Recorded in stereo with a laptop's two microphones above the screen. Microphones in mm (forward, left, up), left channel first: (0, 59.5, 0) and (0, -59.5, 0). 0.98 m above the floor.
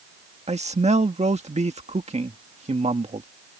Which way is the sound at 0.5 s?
70° right (ahead or behind).